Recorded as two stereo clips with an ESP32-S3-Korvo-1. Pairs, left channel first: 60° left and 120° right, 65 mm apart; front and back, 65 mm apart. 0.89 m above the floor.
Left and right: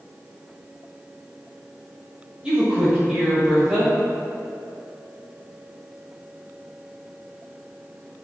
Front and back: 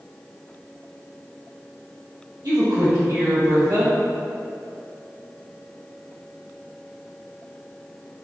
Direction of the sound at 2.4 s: 165° left.